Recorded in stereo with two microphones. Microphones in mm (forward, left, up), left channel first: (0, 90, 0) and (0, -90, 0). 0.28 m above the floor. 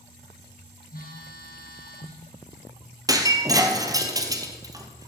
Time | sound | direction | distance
0.9 | a phone buzzing | 60° left (ahead or behind) | 2.5 m
3.1 | breaking glass | 20° right (ahead or behind) | 1.2 m